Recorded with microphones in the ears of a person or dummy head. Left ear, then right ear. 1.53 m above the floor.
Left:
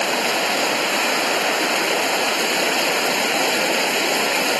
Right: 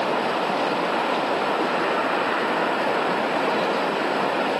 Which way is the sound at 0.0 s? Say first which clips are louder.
Left 3 dB; 60° left (ahead or behind).